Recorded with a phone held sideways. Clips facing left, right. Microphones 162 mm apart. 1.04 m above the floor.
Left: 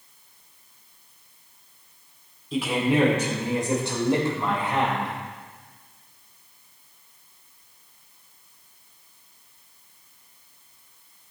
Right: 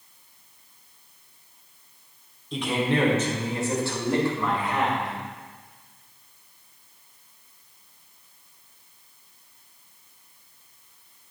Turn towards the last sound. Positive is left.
turn(degrees=30)  # may be behind; listen again after turning